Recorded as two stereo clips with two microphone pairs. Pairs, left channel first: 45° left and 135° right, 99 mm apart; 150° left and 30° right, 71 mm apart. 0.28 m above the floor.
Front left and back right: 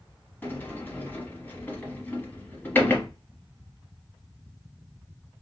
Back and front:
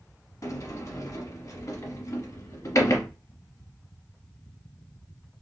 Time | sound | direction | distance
0.4 | a sliding door | 115° left | 1.0 m